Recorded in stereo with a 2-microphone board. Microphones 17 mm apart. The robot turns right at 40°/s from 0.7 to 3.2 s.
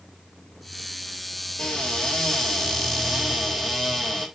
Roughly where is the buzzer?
No buzzer in this recording.